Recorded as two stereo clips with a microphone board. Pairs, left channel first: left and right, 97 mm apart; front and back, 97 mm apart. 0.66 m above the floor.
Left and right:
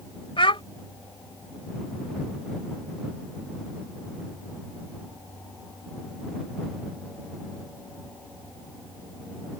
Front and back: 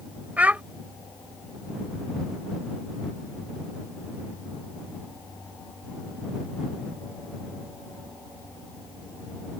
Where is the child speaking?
105° left.